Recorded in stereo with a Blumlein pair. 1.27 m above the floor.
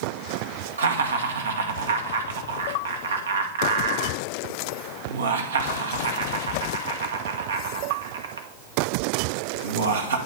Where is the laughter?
70° right, 1.1 m.